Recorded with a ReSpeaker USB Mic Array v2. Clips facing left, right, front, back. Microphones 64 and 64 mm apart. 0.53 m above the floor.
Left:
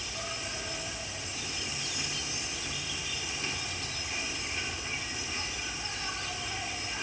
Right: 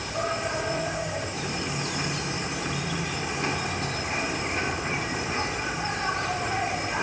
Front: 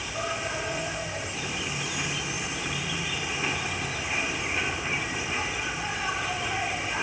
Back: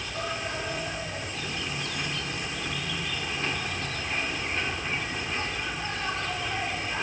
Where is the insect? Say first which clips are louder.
Right 11 dB, front 1 dB; 80° right.